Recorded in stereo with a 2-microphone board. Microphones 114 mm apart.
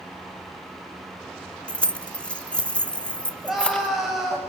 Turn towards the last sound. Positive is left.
turn(degrees=0)  # may be behind; listen again after turning